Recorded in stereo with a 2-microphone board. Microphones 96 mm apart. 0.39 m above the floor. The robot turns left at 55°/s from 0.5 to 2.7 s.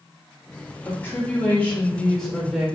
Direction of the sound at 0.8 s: 25° left (ahead or behind).